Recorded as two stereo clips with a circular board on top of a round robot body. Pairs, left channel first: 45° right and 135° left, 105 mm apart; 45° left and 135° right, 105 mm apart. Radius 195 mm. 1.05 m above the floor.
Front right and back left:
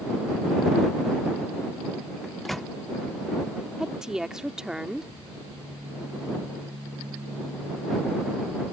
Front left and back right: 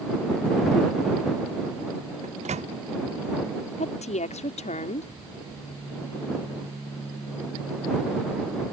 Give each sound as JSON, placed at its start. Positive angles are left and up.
{"t": 2.2, "sound": "a microwave", "azimuth_deg": -135}
{"t": 3.8, "sound": "a woman speaking", "azimuth_deg": 50}